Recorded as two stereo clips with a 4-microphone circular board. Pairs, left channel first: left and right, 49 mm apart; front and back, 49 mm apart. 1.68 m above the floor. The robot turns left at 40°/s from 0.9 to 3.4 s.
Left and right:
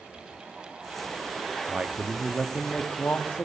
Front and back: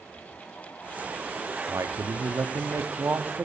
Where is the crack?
No crack in this recording.